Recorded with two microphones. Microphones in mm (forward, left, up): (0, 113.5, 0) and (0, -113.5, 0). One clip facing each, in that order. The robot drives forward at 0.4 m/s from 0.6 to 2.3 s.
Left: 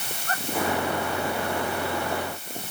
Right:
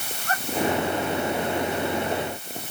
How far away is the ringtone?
No ringtone in this recording.